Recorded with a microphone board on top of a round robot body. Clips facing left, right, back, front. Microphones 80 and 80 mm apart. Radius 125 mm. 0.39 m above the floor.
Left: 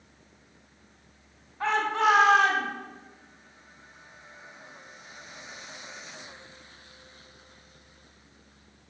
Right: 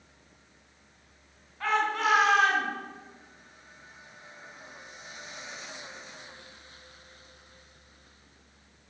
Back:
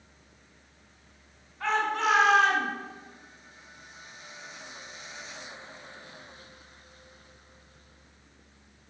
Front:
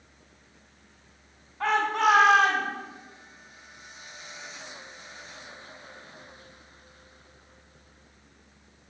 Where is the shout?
30° left, 5 m; by 2.7 s 35° left, 6 m.